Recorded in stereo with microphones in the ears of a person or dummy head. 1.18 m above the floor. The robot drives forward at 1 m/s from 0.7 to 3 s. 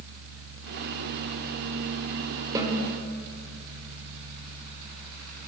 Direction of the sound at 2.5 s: 20° right (ahead or behind).